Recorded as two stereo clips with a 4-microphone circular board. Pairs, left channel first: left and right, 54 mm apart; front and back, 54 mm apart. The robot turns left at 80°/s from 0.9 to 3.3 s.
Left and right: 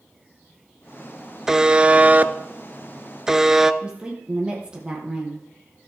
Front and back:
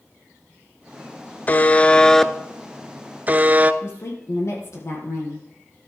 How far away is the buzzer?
About 0.6 m.